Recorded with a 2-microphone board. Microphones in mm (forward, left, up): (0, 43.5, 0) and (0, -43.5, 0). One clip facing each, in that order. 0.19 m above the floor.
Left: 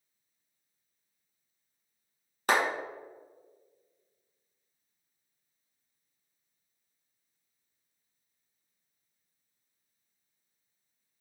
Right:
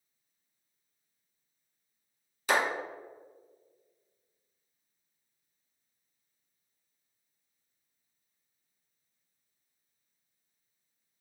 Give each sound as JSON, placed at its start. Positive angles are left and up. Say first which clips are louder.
{"t": 2.5, "sound": "a clap", "louder": "left 1 dB", "side_deg": 50, "distance_m": 1.5}